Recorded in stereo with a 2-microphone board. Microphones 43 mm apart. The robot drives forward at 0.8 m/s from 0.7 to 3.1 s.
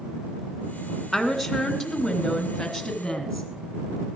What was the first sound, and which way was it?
A woman speaking, 5° left (ahead or behind).